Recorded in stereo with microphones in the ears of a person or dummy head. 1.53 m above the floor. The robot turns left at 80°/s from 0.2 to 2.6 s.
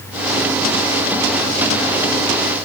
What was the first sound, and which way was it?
Only background noise.